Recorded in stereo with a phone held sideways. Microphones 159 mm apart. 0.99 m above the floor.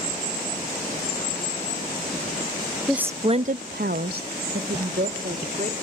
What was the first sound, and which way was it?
A woman speaking, centre (ahead or behind).